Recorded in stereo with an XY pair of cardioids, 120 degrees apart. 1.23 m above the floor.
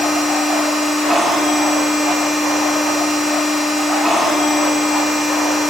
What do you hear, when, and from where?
0.0 s a machine running: straight ahead, 3.5 m